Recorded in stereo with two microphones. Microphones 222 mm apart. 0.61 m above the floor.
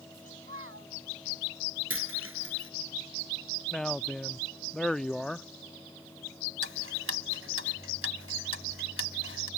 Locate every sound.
0.1 s a child speaking: 75° right (ahead or behind)
1.9 s a dropped coin: 75° right (ahead or behind)
3.7 s a man speaking: centre (ahead or behind)
6.6 s ticking: 75° right (ahead or behind)